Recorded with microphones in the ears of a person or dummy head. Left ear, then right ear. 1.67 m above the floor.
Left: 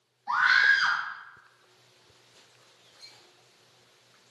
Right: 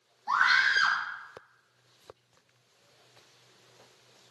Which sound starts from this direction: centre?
A scream, at 0.3 s.